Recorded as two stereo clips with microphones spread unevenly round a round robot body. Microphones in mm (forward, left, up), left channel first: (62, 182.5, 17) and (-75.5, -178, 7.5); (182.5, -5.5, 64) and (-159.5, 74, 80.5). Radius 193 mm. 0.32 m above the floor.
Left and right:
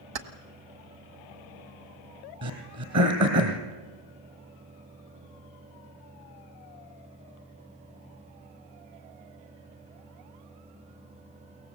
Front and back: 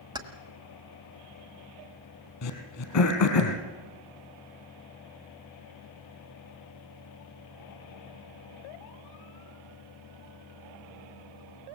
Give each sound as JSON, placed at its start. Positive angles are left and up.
{"t": 0.1, "sound": "keys jangling", "azimuth_deg": -115, "distance_m": 1.5}
{"t": 2.4, "sound": "throat clearing", "azimuth_deg": -60, "distance_m": 2.5}